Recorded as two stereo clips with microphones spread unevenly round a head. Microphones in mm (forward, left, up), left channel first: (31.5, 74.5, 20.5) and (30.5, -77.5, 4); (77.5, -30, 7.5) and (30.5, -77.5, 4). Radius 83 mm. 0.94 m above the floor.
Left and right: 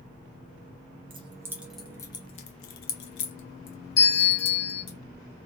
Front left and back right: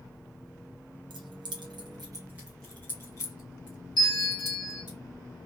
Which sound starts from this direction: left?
A bell, at 4.0 s.